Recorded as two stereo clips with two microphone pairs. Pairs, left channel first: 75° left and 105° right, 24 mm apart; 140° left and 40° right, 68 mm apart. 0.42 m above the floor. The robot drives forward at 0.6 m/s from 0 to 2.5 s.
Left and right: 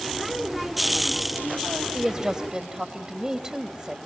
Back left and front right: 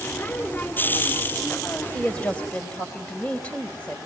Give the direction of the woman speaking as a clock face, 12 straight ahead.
6 o'clock.